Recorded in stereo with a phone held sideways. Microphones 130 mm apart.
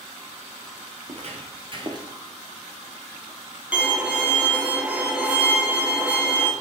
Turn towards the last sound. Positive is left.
turn(degrees=-10)  # may be behind; listen again after turning